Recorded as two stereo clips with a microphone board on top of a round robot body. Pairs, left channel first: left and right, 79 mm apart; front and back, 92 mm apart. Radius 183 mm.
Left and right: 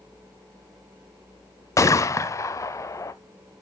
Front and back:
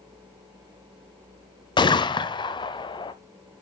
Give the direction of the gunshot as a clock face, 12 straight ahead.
11 o'clock.